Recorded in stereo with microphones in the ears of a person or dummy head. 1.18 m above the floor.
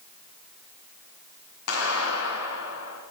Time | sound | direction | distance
1.7 | a clap | 90° left | 7.5 m